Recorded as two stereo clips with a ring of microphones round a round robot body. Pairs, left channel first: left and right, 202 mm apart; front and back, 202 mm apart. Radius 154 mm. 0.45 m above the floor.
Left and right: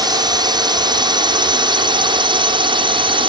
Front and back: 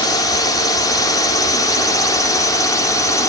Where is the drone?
50° right; by 3.3 s 55° right.